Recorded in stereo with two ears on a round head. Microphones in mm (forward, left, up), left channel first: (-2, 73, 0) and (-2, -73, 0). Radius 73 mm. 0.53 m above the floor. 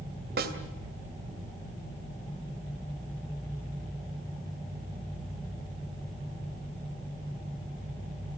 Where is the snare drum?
65° right (ahead or behind), 2.5 m.